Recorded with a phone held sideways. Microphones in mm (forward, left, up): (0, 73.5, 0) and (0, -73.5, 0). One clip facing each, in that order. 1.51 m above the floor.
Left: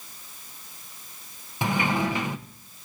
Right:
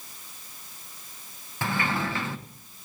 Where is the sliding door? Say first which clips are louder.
Left 4 dB; 15° left (ahead or behind), 0.8 m.